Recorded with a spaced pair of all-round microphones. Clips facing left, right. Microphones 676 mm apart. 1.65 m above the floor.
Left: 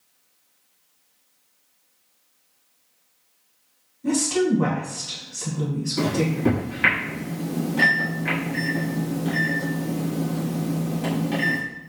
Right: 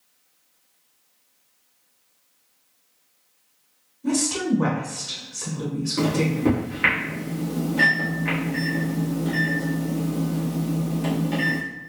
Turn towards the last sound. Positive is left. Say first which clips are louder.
# even
turn(degrees=25)  # may be behind; listen again after turning